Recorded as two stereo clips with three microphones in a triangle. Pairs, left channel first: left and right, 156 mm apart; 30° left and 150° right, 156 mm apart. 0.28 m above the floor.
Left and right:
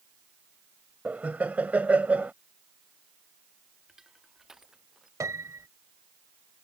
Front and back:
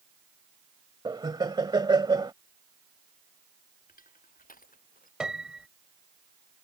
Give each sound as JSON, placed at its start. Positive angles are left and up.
{"t": 1.1, "sound": "laughter", "azimuth_deg": -160}
{"t": 3.9, "sound": "crushing", "azimuth_deg": 0}
{"t": 5.2, "sound": "a piano", "azimuth_deg": -75}